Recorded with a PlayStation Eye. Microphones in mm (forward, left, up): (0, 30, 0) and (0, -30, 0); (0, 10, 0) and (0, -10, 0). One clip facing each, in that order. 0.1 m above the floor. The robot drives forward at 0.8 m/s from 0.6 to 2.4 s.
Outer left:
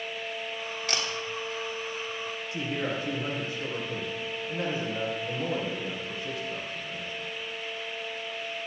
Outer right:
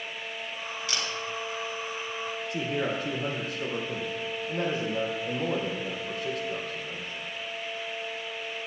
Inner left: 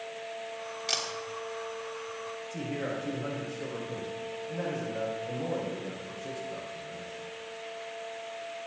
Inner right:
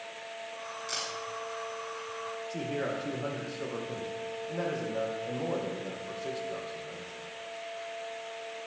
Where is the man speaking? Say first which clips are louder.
Outer right 2 dB, inner right 1 dB; 70° right (ahead or behind), 4 m.